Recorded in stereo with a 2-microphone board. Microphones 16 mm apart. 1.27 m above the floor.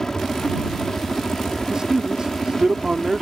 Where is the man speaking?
45° right (ahead or behind).